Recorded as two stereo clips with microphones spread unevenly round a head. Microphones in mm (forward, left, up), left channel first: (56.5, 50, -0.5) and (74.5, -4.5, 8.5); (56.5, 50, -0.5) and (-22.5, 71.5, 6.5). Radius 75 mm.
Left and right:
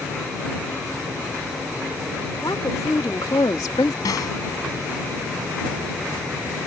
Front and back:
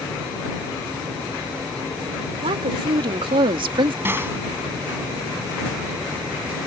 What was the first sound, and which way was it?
A woman speaking, 165° left.